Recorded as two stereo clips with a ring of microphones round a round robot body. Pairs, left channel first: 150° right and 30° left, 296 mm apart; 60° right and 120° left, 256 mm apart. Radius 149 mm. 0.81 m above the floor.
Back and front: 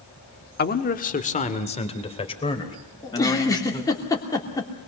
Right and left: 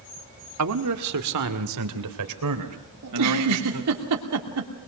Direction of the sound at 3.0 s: 130° left.